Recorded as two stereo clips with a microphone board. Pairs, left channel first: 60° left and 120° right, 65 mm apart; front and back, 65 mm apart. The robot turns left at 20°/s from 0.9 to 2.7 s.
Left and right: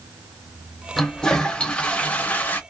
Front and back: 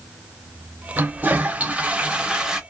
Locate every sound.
1.0 s a toilet flushing: 135° left, 0.5 m; by 2.6 s 105° left, 0.5 m